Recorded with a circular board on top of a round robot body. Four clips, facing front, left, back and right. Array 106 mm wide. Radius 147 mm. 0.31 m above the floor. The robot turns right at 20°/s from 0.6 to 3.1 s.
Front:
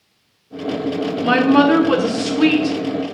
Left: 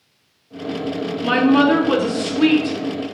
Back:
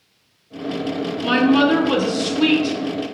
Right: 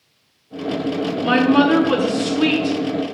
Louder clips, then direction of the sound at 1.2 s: Even, front 2 dB; 5° right.